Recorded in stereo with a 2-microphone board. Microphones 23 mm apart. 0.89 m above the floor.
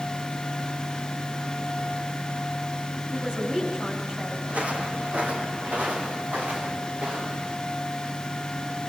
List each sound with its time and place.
3.1 s a man speaking: 40° right (ahead or behind), 6.5 m
4.5 s footsteps: 75° right (ahead or behind), 3.5 m; by 7.5 s 60° right (ahead or behind), 7 m